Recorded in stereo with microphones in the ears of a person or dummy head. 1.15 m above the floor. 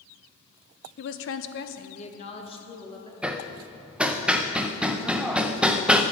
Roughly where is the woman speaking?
Left.